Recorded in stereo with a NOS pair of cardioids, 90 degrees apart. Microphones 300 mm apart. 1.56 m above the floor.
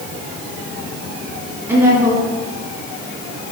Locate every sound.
1.7 s a woman speaking: 15° right, 3 m